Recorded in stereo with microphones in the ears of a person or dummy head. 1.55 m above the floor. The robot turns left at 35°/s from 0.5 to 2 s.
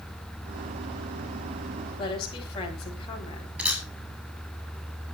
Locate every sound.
2.0 s a woman speaking: 30° left (ahead or behind), 9 m; by 3.5 s 25° left (ahead or behind), 9 m
3.6 s a camera shutter: 10° right (ahead or behind), 9 m